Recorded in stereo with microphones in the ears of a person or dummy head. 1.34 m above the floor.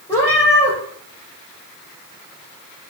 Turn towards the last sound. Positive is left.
turn(degrees=15)  # may be behind; listen again after turning